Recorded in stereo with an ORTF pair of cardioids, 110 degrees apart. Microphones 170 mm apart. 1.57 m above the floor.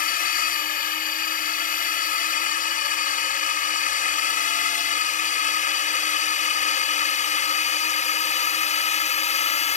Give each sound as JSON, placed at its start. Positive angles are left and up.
{"t": 0.0, "sound": "a drone", "azimuth_deg": 55}